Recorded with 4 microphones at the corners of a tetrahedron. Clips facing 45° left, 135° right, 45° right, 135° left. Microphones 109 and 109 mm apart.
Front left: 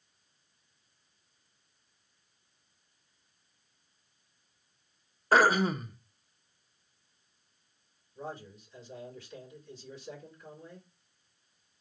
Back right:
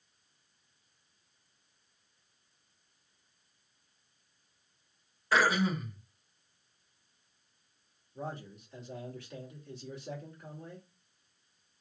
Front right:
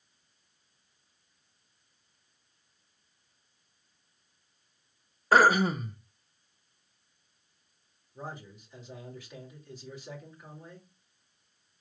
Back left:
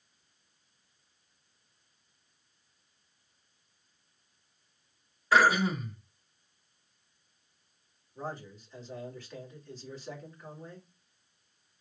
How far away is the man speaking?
About 2.5 m.